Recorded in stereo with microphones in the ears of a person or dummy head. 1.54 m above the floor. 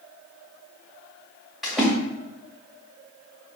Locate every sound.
1.6 s a splash: 5° left (ahead or behind), 1.8 m